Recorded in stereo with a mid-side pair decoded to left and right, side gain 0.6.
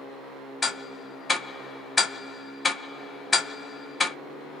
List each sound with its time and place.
0.6 s ticking: 20° left, 0.6 m